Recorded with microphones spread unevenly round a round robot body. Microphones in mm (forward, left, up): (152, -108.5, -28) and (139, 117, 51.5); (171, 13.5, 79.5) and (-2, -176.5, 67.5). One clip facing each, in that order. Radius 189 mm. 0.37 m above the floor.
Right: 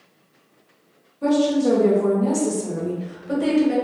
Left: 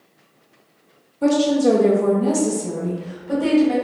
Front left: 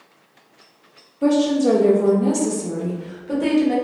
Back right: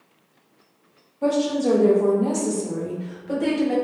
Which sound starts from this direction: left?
A woman speaking, at 1.2 s.